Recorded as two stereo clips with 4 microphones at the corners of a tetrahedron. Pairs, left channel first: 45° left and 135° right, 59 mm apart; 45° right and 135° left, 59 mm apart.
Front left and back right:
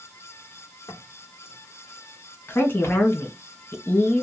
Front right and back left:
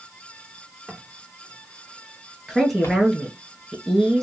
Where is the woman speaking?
45° left, 1.3 m.